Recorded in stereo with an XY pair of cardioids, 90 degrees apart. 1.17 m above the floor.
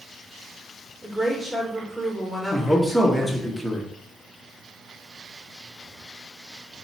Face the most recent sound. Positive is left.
turn(degrees=0)